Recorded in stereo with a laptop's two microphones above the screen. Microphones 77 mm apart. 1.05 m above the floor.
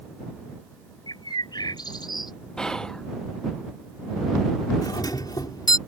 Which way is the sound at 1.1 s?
75° left (ahead or behind).